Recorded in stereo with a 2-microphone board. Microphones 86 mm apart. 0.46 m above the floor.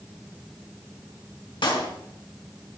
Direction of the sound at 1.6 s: 70° left (ahead or behind).